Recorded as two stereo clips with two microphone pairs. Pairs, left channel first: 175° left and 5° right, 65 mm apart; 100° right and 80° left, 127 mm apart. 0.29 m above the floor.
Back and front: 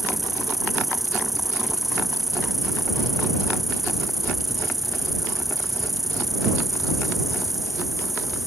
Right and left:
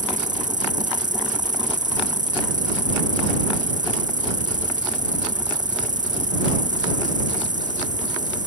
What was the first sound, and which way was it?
An insect, 85° left.